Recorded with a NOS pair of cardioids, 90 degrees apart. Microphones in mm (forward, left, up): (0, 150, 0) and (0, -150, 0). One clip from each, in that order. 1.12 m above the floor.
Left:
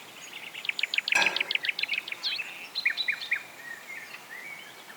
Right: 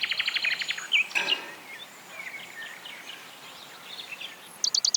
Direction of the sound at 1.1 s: 40° left.